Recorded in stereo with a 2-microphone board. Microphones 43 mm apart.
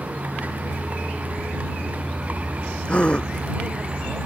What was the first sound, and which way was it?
A vehicle, 40° right (ahead or behind).